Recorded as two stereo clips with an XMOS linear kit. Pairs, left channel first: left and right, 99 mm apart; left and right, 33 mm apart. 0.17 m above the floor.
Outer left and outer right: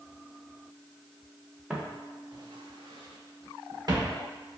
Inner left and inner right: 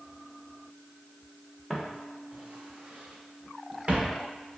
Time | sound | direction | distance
1.7 | footsteps | 10° right (ahead or behind) | 0.8 m